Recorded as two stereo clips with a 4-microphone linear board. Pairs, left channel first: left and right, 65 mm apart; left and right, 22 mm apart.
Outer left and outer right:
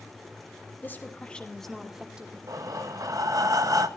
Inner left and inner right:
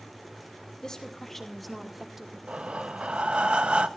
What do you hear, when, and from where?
0.8 s a woman speaking: 35° left (ahead or behind), 2.5 m; by 2.4 s 20° right (ahead or behind), 2.5 m
2.5 s breathing: 65° right (ahead or behind), 0.9 m